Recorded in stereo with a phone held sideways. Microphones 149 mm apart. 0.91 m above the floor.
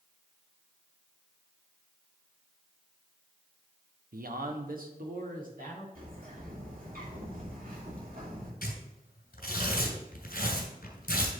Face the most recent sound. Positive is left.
turn(degrees=80)